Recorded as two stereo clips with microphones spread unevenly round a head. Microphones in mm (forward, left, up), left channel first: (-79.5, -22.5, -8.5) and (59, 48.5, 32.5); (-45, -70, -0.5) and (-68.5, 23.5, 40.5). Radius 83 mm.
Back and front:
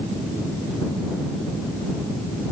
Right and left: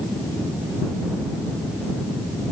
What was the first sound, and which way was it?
Only background noise.